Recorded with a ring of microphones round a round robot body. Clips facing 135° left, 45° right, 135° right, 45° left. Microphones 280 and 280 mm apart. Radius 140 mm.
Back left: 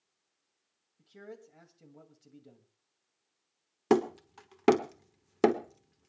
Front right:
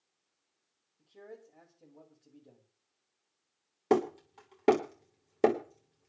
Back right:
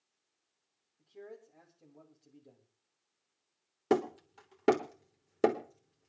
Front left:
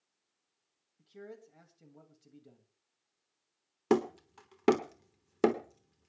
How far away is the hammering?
About 1.2 m.